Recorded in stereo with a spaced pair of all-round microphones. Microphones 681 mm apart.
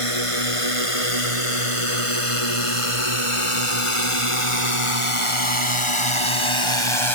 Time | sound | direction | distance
0.0 | a drone | 50° left (ahead or behind) | ?